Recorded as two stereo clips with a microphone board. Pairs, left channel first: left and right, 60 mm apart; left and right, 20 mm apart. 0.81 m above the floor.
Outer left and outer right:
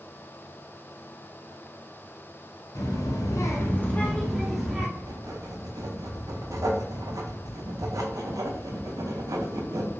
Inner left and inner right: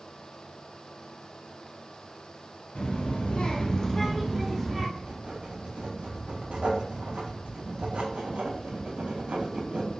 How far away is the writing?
About 0.5 m.